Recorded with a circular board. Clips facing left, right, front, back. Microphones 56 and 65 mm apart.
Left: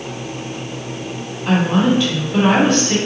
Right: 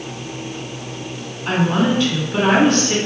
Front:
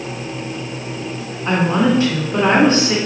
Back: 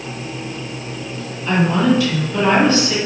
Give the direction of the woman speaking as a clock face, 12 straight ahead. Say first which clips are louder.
Left 2 dB, even; 12 o'clock.